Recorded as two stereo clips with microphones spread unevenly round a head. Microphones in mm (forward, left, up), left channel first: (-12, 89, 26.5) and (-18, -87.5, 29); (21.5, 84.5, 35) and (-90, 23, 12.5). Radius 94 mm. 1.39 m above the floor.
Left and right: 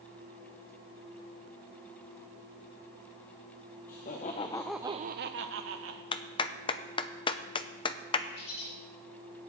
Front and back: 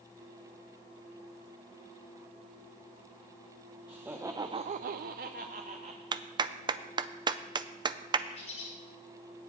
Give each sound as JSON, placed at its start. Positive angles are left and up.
{"t": 3.9, "sound": "laughter", "azimuth_deg": 130, "distance_m": 1.2}
{"t": 6.1, "sound": "a clap", "azimuth_deg": 150, "distance_m": 0.6}
{"t": 8.3, "sound": "a bird", "azimuth_deg": 55, "distance_m": 4.5}